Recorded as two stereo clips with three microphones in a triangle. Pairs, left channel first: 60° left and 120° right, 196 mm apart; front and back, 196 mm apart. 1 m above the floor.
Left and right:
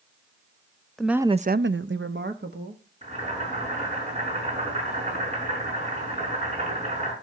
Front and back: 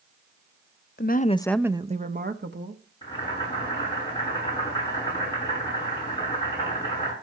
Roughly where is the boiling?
Ahead right.